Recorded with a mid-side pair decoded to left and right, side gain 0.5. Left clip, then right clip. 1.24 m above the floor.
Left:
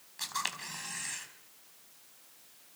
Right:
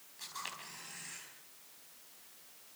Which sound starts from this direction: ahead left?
A camera shutter, at 0.2 s.